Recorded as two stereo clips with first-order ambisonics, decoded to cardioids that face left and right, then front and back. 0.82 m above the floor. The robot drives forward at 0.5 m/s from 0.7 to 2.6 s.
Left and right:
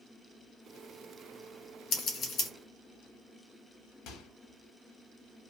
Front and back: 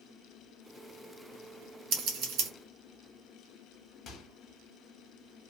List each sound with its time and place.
1.9 s scissors: 135° left, 0.8 m; by 2.5 s 145° left, 1.1 m
4.1 s a microwave: 65° left, 0.7 m